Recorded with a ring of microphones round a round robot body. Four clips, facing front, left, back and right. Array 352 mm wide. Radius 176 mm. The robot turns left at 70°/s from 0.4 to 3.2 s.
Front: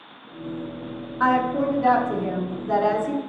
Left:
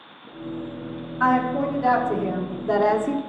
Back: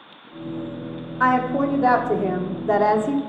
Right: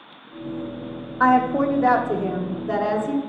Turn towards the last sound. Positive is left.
turn(degrees=125)